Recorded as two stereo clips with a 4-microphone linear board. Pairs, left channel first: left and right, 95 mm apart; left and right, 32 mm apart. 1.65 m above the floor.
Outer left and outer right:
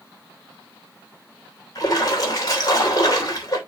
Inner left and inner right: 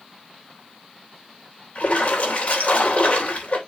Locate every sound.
1.8 s a splash: 40° left (ahead or behind), 3 m